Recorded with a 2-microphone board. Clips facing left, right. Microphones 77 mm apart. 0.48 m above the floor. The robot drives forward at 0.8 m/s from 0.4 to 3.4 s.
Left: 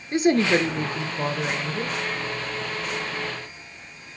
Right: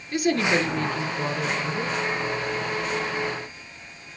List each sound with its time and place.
0.1 s a woman speaking: 30° left (ahead or behind), 0.9 m; by 2.0 s 15° left (ahead or behind), 1.8 m